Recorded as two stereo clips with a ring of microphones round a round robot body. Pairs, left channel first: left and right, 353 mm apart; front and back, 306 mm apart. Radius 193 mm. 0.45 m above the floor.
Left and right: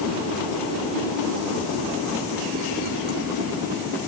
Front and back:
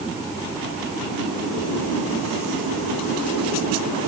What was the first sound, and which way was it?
Only background noise.